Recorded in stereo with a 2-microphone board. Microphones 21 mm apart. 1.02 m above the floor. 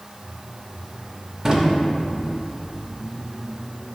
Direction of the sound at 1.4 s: 30° right (ahead or behind).